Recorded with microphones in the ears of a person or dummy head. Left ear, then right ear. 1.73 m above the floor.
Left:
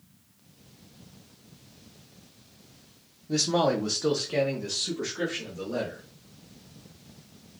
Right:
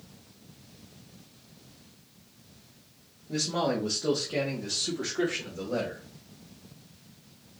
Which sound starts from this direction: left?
A man speaking, at 3.3 s.